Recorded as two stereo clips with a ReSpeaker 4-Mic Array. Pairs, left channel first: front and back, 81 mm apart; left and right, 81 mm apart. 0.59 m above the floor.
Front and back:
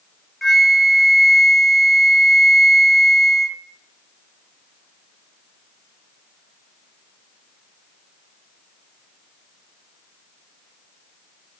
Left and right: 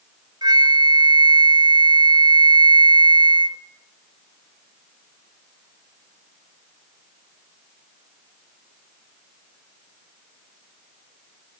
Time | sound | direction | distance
0.4 | a flute | 90° right | 0.8 m